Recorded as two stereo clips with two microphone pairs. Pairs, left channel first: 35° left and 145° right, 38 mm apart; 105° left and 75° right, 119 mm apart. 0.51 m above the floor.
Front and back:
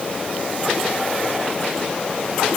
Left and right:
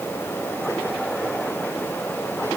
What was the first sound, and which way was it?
Only background noise.